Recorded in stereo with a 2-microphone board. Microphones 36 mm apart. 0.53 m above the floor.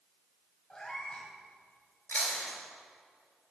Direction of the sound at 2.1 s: 60° left (ahead or behind).